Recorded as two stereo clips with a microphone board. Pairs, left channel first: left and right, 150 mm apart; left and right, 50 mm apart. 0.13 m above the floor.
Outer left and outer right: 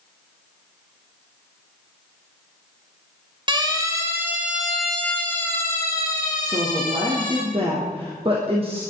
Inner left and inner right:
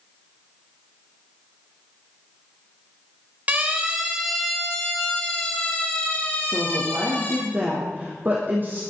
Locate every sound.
3.5 s a siren: 30° right (ahead or behind), 3 m; by 7.4 s 30° left (ahead or behind), 6 m
6.4 s a woman speaking: 40° right (ahead or behind), 4.5 m